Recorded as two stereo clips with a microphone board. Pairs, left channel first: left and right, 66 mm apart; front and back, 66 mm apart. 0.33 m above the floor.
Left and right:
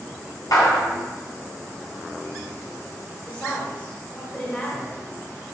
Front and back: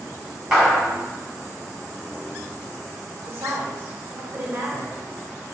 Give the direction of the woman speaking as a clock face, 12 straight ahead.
7 o'clock.